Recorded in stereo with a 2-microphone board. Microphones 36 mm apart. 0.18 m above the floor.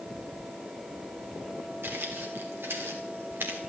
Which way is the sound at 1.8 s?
80° right.